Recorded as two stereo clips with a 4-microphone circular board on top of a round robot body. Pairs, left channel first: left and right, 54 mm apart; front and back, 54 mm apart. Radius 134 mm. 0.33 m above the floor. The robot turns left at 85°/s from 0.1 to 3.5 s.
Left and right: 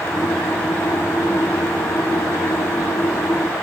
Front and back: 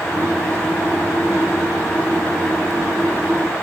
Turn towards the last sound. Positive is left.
No sound to turn to.